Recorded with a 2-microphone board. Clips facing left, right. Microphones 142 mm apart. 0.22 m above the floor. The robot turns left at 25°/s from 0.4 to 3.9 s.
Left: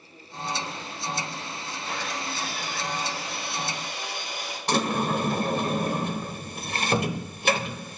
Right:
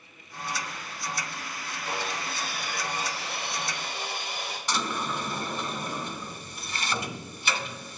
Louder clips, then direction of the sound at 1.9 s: Even; 35° right.